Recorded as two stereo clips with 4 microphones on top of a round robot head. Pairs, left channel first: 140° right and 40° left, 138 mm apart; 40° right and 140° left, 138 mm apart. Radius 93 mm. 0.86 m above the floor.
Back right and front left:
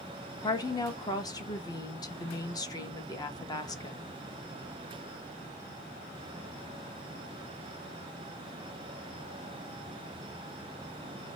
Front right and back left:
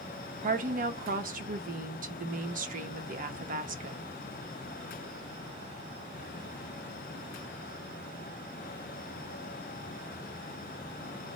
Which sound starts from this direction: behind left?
A woman speaking, at 0.4 s.